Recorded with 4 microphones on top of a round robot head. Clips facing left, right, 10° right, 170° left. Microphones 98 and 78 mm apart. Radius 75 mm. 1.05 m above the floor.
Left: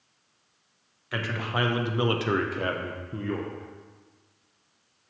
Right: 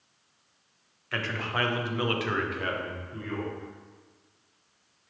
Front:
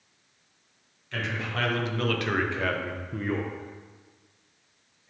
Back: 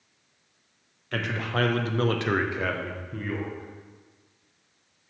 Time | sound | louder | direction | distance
1.1 | a man speaking | left 1 dB, back 3 dB | 170° left | 1.1 m